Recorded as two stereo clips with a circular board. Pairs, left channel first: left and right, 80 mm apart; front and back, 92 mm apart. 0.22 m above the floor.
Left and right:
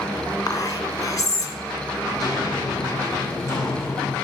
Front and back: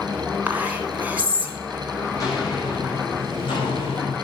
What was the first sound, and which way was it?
Whispering, 110° left.